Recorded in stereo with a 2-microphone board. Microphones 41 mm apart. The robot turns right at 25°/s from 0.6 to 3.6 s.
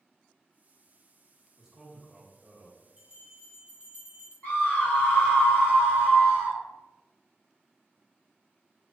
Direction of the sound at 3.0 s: 15° right (ahead or behind).